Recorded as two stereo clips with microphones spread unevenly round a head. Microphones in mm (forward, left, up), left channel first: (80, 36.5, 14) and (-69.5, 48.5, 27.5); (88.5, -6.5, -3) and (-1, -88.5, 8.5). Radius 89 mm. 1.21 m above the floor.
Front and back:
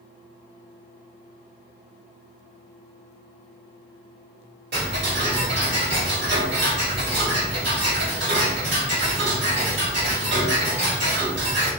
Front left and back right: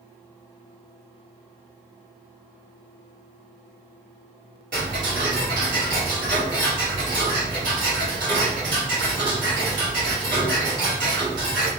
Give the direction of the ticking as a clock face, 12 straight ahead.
6 o'clock.